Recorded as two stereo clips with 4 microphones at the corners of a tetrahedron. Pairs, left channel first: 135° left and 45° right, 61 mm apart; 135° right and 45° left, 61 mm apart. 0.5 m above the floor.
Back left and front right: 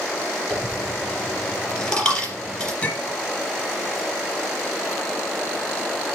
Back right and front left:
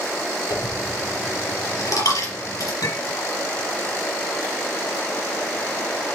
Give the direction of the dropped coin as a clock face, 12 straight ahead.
5 o'clock.